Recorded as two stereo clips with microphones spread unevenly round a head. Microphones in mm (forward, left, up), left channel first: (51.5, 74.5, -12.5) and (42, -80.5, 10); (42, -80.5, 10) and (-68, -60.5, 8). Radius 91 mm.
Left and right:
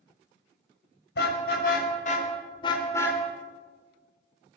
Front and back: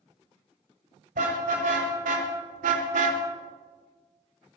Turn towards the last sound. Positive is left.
turn(degrees=170)